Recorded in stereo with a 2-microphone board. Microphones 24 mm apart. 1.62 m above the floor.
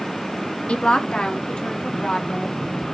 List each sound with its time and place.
0.7 s a woman speaking: 60° left (ahead or behind), 0.6 m; by 2.6 s 55° left (ahead or behind), 2 m